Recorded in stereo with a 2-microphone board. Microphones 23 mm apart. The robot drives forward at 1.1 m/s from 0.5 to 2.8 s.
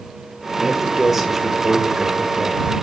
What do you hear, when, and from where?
0.6 s a man speaking: 15° right (ahead or behind), 1.1 m; by 2.8 s 10° right (ahead or behind), 2.5 m